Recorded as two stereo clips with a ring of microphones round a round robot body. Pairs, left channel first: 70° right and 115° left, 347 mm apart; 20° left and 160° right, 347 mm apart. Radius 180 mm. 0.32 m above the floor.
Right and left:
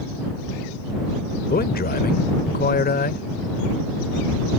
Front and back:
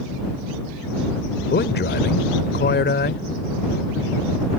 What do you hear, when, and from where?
1.5 s a man speaking: 20° right